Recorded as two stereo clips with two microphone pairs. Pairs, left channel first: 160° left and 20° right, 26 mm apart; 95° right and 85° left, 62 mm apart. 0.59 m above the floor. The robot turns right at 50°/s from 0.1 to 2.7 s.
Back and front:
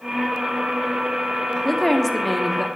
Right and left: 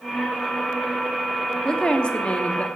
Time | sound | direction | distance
1.6 | a woman speaking | 145° right | 0.8 m